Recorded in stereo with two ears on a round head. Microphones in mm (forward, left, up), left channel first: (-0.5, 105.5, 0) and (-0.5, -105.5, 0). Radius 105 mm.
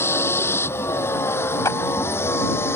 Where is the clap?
15° left (ahead or behind).